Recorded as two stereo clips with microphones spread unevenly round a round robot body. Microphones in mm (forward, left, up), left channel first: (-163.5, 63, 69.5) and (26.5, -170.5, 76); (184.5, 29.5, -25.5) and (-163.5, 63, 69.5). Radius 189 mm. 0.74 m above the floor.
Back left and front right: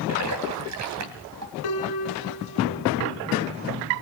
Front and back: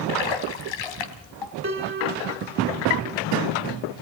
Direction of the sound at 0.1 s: 5° right.